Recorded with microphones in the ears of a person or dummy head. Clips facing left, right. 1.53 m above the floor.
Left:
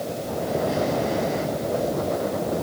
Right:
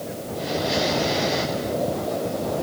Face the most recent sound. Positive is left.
No sound to turn to.